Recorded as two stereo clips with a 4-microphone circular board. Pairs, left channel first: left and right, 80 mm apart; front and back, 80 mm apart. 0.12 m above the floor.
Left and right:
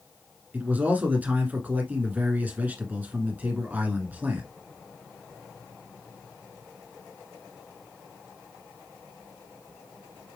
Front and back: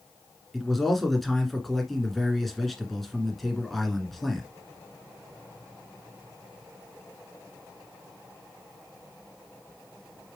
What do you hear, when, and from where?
0.5 s a man speaking: 85° right, 1.6 m